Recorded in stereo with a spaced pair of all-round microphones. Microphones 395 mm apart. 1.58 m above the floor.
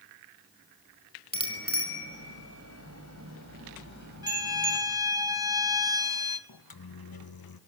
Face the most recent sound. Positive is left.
turn(degrees=65)  # may be behind; listen again after turning